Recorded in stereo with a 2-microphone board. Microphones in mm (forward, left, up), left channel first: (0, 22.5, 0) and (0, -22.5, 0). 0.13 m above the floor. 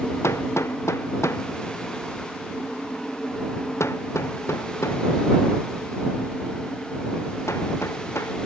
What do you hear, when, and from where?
0.2 s hammering: 80° left